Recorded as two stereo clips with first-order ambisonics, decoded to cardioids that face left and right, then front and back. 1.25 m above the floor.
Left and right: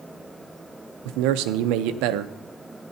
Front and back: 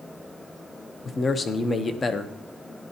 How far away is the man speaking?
About 0.7 m.